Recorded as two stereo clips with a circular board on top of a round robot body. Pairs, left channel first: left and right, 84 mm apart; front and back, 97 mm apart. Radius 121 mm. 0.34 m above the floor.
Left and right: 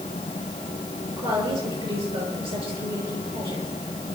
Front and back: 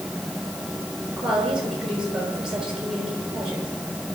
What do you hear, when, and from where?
1.2 s a woman speaking: 95° right, 7 m